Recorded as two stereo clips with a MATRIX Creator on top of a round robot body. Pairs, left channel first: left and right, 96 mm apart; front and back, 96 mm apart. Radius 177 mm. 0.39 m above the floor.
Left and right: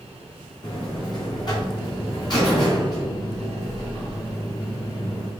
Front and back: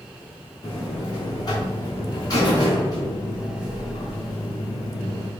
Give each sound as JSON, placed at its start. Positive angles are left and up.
{"t": 0.6, "sound": "a buzzer", "azimuth_deg": 50, "distance_m": 3.0}